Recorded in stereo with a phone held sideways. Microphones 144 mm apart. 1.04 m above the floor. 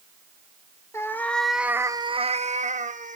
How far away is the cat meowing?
About 1.1 m.